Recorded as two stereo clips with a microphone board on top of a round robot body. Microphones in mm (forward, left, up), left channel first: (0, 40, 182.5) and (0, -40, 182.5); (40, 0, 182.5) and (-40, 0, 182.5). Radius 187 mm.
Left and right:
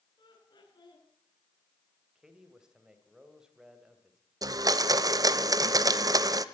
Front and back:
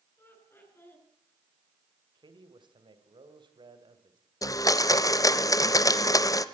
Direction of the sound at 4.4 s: 45° right.